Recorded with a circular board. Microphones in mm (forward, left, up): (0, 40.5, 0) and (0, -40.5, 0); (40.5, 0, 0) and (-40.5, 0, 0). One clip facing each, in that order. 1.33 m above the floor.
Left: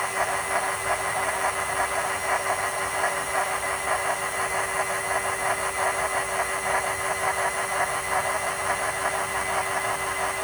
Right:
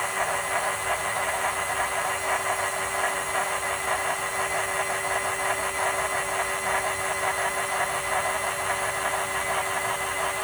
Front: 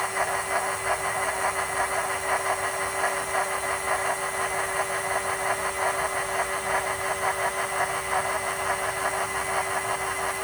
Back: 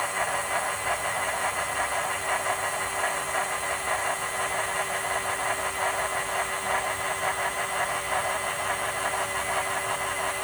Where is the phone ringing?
I don't hear a phone ringing.